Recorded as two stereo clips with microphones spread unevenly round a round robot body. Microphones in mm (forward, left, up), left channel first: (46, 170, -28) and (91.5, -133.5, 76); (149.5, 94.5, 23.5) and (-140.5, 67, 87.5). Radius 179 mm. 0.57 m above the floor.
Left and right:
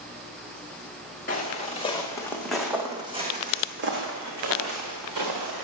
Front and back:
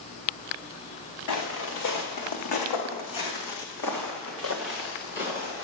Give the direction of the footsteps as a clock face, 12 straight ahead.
11 o'clock.